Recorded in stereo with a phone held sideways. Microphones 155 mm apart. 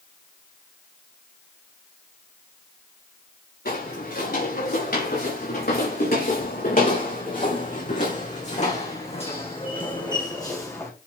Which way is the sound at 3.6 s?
80° left.